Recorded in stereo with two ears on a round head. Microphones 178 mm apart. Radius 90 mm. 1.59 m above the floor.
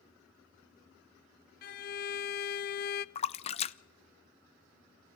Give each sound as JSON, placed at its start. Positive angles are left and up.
{"t": 1.6, "sound": "a violin", "side_deg": 50, "distance_m": 0.5}
{"t": 3.1, "sound": "a splash", "side_deg": 30, "distance_m": 0.6}